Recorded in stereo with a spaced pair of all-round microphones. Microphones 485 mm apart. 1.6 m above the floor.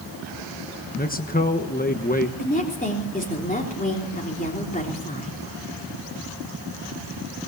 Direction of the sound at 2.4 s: 15° left (ahead or behind).